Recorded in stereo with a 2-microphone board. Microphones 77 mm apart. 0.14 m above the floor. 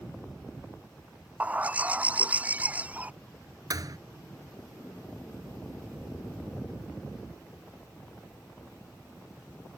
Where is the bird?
20° right (ahead or behind).